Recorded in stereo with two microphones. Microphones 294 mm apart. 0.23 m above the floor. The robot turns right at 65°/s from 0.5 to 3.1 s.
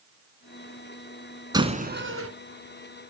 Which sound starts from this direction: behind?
A door slam, at 1.5 s.